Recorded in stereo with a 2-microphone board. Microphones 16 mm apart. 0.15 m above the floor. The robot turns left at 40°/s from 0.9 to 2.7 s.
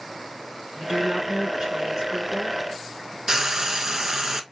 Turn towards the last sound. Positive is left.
turn(degrees=-35)  # may be behind; listen again after turning